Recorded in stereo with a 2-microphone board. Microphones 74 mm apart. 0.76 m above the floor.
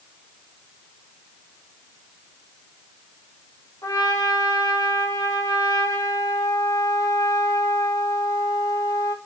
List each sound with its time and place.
3.8 s a trumpet: 60° left (ahead or behind), 2.5 m